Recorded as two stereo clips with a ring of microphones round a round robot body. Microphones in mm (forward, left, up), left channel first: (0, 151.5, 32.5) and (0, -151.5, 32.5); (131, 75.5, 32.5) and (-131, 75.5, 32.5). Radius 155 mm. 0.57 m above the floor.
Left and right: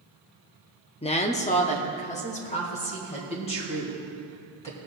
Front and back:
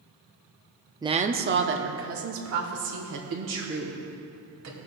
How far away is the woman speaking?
About 0.6 m.